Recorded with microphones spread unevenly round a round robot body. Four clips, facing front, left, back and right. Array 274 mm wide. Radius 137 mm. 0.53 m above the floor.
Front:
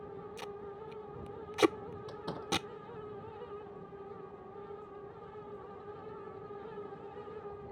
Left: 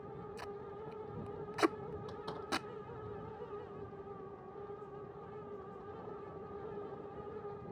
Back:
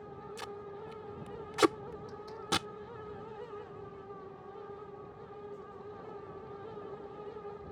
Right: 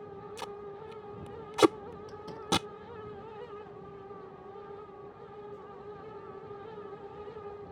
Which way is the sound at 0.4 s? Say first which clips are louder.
Right 6 dB, back 1 dB; 90° right.